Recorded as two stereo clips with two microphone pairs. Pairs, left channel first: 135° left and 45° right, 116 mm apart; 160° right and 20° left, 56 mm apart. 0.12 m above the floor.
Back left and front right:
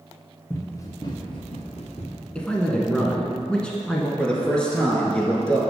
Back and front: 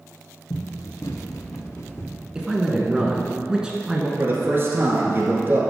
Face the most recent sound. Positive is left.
turn(degrees=55)